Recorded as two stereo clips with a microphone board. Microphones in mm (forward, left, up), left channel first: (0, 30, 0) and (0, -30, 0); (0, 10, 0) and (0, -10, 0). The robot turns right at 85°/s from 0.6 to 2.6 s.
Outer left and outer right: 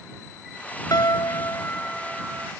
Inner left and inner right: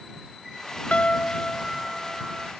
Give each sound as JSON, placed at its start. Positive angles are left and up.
{"t": 0.9, "sound": "a piano", "azimuth_deg": 80}